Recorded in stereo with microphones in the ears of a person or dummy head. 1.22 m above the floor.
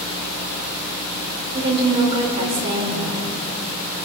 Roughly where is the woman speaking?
Right.